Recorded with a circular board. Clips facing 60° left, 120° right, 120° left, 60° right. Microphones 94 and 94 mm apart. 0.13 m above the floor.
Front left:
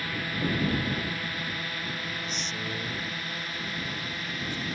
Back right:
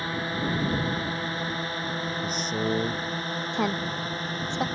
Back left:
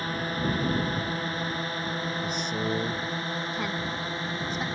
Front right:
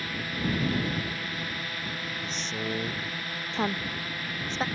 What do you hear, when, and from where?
0.0 s a drone: 175° left; by 4.8 s 175° right
2.2 s a man speaking: 160° right
3.5 s a woman speaking: 120° right